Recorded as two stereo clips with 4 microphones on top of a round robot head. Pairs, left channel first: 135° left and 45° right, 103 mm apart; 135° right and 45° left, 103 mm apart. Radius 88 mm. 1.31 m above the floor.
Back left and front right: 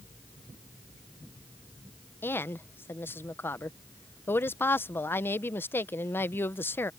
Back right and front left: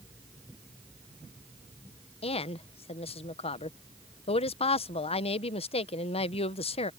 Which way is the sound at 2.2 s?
155° right.